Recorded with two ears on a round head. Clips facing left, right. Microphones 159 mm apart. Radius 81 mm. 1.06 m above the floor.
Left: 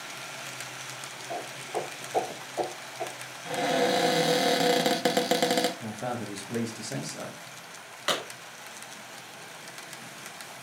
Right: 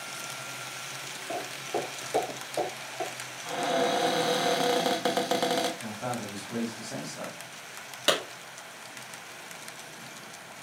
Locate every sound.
1.3 s footsteps: 55° right (ahead or behind), 1.9 m; by 3.1 s 60° right (ahead or behind), 3.5 m
3.5 s a cupboard door: 25° left (ahead or behind), 0.7 m
5.8 s a man speaking: 25° left (ahead or behind), 1.2 m
8.1 s a clap: 50° right (ahead or behind), 2.5 m